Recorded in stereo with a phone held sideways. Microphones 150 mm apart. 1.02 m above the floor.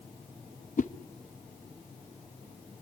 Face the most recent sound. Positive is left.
turn(degrees=60)  # may be behind; listen again after turning